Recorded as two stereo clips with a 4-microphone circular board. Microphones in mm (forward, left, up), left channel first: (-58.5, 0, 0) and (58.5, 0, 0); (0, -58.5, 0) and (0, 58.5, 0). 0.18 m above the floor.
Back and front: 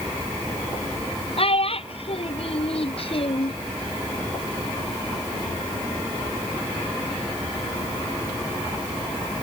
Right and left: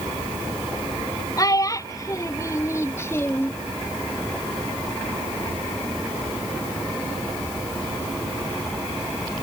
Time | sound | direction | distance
1.4 | a child speaking | 150° right | ?